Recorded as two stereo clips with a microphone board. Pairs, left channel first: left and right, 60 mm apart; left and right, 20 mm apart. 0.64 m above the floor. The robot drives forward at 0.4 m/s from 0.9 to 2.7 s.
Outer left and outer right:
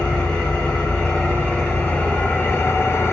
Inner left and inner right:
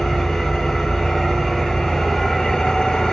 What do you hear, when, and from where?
0.0 s an engine running: 20° left (ahead or behind), 1.2 m; by 3.1 s 45° left (ahead or behind), 0.6 m